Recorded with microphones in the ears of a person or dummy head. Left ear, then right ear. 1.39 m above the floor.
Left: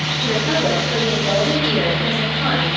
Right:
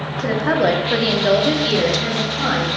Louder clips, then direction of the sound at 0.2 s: Right 3 dB; 35° right (ahead or behind).